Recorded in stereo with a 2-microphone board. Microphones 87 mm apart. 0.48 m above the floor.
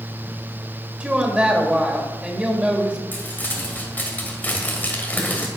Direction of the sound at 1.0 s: 15° right (ahead or behind).